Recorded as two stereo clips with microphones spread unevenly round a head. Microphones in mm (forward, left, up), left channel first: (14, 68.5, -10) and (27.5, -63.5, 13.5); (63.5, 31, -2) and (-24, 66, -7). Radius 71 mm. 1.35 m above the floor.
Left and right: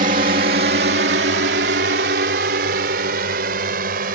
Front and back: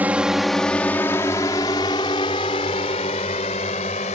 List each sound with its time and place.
0.0 s a drone: 125° right; by 4.2 s 65° right